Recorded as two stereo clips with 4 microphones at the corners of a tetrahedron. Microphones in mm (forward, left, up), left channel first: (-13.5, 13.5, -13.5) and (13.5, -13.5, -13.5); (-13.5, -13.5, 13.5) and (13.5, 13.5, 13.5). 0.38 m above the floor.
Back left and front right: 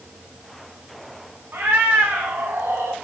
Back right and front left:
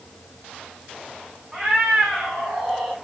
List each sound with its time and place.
1.5 s a cat meowing: 30° right, 2.5 m; by 2.9 s 45° right, 1.6 m